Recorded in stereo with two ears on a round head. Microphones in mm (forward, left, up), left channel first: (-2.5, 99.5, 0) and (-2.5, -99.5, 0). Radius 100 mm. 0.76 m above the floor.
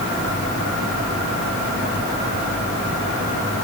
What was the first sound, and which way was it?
Only background noise.